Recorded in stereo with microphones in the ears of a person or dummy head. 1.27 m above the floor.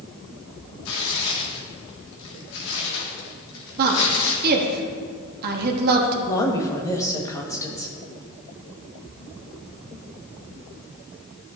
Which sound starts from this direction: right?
A woman speaking, at 3.8 s.